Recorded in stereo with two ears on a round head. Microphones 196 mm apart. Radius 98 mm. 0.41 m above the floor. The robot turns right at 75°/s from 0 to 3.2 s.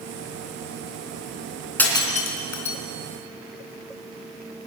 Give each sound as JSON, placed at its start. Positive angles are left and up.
{"t": 1.8, "sound": "breaking glass", "side_deg": 5, "distance_m": 3.0}